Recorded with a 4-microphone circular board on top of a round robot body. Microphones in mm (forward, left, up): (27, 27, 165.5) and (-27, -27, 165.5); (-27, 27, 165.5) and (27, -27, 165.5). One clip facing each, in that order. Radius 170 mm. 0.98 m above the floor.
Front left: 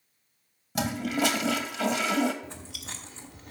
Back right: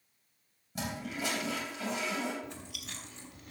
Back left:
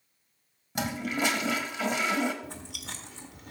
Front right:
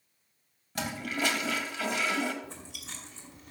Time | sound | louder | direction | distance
0.8 | a toilet flushing | front left 10 dB, back left 3 dB | 60° left | 0.8 m
2.4 | chewing | front left 2 dB, back left 3 dB | 100° left | 1.6 m